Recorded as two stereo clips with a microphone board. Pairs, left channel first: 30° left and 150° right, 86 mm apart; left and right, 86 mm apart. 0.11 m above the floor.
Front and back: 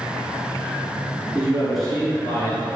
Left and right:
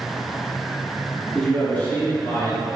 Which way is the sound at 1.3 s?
165° left.